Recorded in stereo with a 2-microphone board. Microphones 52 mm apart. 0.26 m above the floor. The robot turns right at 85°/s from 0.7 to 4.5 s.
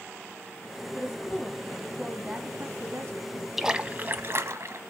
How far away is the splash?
About 0.9 m.